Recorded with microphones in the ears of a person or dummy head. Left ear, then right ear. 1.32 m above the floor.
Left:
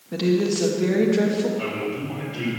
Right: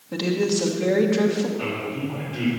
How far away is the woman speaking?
About 1.5 m.